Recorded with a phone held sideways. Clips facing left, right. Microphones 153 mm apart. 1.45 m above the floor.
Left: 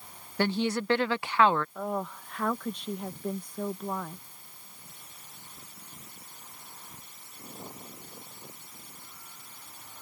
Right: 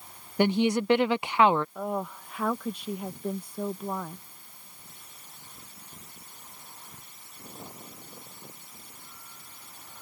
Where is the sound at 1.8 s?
5° right (ahead or behind).